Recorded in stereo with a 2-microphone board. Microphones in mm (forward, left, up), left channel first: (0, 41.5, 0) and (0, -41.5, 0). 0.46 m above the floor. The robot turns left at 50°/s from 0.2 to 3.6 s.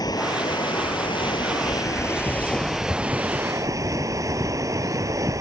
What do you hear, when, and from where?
0.0 s running water: 125° left; by 5.4 s 45° right